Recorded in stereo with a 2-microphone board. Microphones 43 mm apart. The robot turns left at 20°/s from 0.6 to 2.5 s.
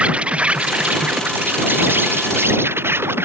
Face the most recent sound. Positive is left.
turn(degrees=-65)